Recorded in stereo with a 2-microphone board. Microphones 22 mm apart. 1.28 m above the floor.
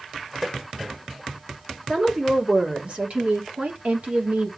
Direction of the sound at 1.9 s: 30° right (ahead or behind).